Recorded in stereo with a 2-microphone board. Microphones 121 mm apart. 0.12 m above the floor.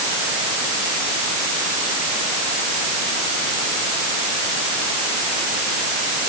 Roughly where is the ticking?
No ticking in this recording.